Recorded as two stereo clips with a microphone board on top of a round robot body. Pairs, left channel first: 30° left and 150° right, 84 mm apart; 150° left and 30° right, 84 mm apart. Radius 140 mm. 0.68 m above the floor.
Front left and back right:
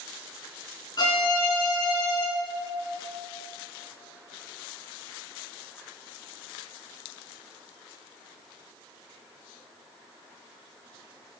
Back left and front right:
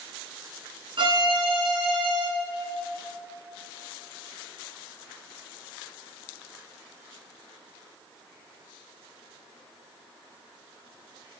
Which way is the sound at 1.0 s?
10° right.